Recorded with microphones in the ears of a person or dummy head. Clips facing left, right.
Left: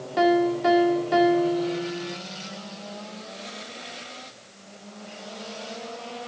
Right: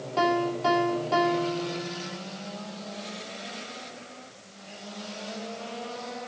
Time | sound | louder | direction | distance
0.2 | a piano | left 5 dB | 15° left (ahead or behind) | 3 m